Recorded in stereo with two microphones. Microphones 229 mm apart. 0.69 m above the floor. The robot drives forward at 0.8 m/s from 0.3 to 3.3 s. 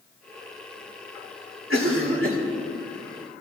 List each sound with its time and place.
1.7 s a cough: 65° right (ahead or behind), 2.5 m